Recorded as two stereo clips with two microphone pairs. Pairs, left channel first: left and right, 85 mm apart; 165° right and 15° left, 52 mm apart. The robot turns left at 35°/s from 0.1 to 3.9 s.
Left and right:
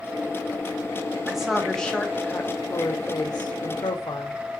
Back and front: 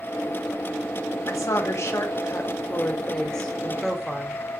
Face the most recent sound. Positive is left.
turn(degrees=100)